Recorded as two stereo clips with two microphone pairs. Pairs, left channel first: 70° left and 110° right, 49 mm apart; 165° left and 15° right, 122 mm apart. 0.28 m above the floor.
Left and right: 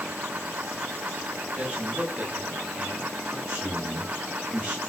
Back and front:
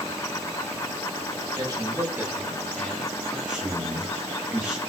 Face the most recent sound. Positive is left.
turn(degrees=-90)